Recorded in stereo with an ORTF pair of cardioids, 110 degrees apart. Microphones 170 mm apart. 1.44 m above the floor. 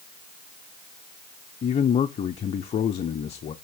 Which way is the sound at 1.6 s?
40° left.